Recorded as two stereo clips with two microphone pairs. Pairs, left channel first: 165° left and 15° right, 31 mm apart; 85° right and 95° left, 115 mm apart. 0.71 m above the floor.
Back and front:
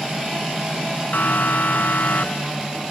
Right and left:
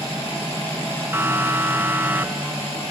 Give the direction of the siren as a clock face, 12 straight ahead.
6 o'clock.